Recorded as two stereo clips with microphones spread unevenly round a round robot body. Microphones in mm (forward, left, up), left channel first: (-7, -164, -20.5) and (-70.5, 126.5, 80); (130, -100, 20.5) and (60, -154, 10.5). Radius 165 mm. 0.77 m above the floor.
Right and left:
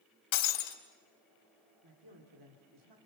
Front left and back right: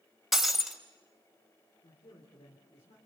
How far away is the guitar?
I don't hear a guitar.